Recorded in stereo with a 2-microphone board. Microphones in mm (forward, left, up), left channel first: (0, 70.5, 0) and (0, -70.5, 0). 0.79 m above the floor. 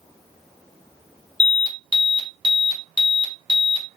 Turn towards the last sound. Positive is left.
turn(degrees=-35)  # may be behind; listen again after turning